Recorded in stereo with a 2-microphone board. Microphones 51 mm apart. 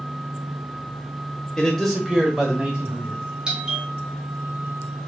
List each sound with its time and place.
1.6 s a man speaking: 10° left (ahead or behind), 1.2 m; by 3.2 s 25° right (ahead or behind), 1.7 m
3.5 s a doorbell: 15° right (ahead or behind), 1.5 m